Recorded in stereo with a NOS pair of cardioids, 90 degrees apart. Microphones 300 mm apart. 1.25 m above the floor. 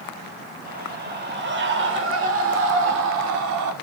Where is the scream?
30° right, 6.5 m; by 3.7 s 75° right, 4 m.